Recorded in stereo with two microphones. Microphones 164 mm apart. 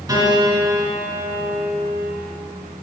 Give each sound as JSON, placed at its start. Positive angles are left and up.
{"t": 0.1, "sound": "a piano", "side_deg": -20, "distance_m": 2.5}